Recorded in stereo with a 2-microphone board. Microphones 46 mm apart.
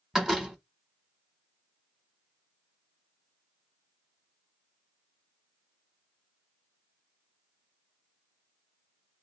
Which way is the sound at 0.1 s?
10° right (ahead or behind).